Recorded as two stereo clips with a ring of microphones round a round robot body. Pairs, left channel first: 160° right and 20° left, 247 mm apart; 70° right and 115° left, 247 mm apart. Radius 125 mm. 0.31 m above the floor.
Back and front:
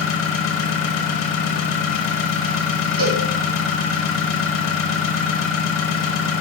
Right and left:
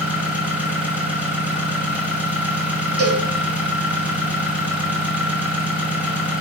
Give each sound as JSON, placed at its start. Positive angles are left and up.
{"t": 0.0, "sound": "an engine running", "azimuth_deg": -165, "distance_m": 0.7}
{"t": 3.0, "sound": "a cowbell", "azimuth_deg": 80, "distance_m": 0.8}